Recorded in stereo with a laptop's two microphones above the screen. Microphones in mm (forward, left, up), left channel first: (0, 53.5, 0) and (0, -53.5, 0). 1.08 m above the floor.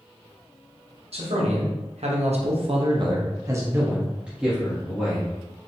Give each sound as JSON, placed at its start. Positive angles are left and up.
{"t": 1.1, "sound": "a man speaking", "side_deg": -70, "distance_m": 1.2}